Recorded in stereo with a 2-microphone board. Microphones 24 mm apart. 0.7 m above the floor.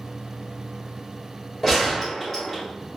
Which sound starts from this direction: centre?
A gunshot, at 1.6 s.